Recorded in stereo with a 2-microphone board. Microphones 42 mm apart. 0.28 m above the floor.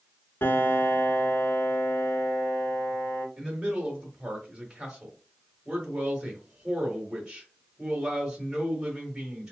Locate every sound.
0.4 s a piano: 75° left (ahead or behind), 0.7 m
3.4 s a man speaking: 20° right (ahead or behind), 0.9 m